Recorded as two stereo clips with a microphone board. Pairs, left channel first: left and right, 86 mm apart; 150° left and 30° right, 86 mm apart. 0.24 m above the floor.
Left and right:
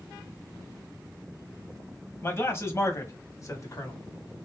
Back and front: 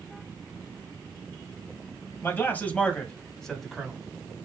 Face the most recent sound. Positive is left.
turn(degrees=60)